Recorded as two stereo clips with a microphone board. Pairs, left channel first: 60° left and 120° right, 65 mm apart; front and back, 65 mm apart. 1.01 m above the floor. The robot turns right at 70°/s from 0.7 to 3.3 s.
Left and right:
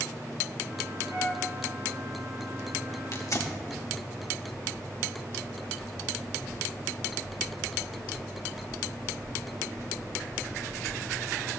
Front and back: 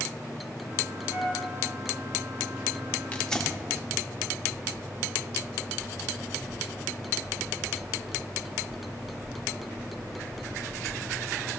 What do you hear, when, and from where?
1.1 s a flute: 50° right, 4.5 m; by 1.4 s 25° right, 4.5 m
3.1 s tearing paper: 60° left, 1.5 m; by 3.6 s 75° left, 1.5 m